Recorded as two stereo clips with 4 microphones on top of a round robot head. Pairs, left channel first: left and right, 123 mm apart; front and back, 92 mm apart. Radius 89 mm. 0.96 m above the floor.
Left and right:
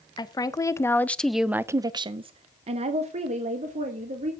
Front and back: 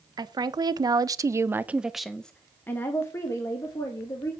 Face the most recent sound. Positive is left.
turn(degrees=-60)